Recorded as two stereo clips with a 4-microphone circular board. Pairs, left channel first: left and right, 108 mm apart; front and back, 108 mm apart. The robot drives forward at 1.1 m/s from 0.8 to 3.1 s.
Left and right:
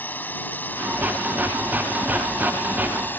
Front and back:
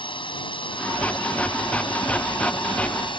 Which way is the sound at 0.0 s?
20° left.